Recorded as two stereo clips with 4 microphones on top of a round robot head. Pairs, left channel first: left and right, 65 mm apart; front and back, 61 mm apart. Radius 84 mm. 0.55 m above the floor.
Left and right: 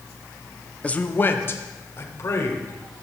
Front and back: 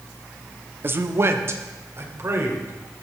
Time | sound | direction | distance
0.8 | a man speaking | 155° left | 0.8 m